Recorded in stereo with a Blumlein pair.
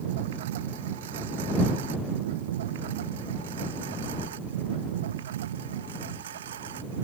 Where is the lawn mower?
55° right; by 7.0 s 60° right.